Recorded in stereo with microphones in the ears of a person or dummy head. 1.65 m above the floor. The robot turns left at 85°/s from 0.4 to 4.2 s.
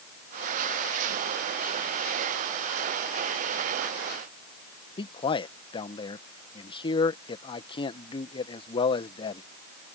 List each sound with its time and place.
5.0 s a man speaking: 30° left (ahead or behind)